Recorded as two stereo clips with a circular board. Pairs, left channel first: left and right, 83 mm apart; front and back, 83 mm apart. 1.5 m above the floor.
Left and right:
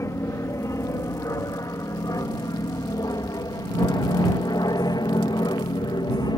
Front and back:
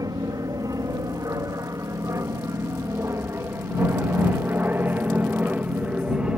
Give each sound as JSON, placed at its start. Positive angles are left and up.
{"t": 0.0, "sound": "an aircraft", "azimuth_deg": 140}